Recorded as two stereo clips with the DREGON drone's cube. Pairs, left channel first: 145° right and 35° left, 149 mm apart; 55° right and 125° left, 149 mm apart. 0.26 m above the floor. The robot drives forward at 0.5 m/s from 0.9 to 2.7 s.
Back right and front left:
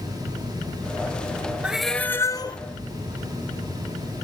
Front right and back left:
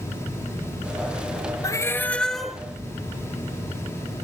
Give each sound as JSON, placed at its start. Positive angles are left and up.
{"t": 1.6, "sound": "a cat meowing", "azimuth_deg": -40, "distance_m": 0.6}